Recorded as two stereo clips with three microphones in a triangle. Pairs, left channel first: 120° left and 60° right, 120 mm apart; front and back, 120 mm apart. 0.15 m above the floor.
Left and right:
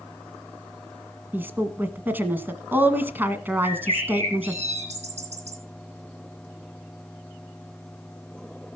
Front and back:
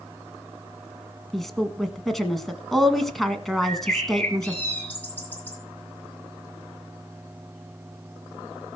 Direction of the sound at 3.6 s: 80° right.